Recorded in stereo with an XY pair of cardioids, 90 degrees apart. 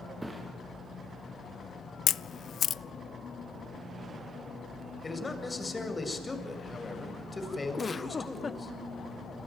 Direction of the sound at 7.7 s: 30° left.